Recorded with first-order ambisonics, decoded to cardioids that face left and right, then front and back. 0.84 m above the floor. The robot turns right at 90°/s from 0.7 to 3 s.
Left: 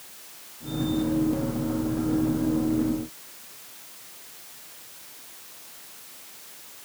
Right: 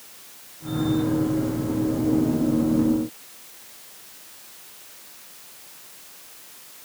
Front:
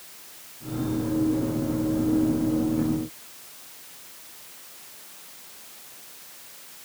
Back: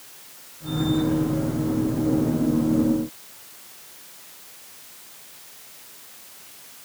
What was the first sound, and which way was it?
Only background noise.